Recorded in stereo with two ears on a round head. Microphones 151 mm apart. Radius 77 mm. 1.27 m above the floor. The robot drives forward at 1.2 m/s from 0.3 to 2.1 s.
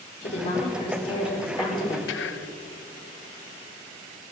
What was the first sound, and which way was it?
A woman speaking, 40° left (ahead or behind).